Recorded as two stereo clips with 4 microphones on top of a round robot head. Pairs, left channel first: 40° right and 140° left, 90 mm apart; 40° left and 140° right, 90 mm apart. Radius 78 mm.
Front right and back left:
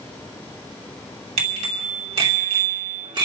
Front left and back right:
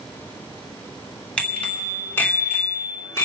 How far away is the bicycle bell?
About 3 m.